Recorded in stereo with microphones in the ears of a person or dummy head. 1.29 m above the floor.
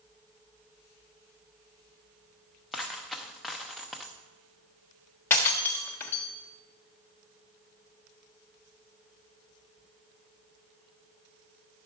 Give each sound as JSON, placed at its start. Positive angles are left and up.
{"t": 2.7, "sound": "a dropped coin", "side_deg": -5, "distance_m": 0.7}
{"t": 5.3, "sound": "breaking glass", "side_deg": 10, "distance_m": 1.2}